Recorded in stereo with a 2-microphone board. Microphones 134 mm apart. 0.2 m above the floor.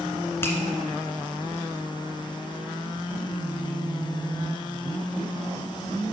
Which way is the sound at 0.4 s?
20° left (ahead or behind).